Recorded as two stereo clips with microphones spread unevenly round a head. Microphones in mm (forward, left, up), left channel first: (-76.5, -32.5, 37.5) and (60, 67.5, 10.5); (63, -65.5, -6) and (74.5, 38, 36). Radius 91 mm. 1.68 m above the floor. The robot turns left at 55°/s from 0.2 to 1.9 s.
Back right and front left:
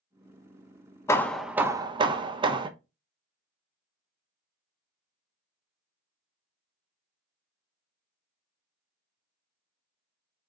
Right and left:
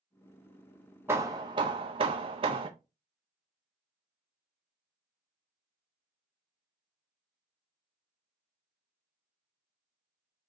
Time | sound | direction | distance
1.1 | hammering | 145° left | 0.7 m